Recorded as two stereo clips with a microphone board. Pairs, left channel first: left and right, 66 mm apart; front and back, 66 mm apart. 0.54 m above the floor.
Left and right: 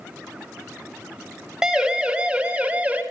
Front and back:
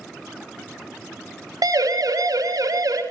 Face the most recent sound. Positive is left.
turn(degrees=-160)